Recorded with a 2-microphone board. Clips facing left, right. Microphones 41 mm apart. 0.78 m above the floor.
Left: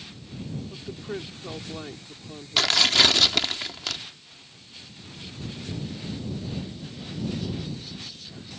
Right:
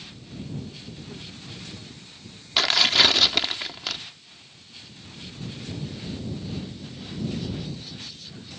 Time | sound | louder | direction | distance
0.7 | a woman speaking | left 6 dB | 65° left (ahead or behind) | ?
2.6 | tearing paper | right 1 dB | 5° right (ahead or behind) | ?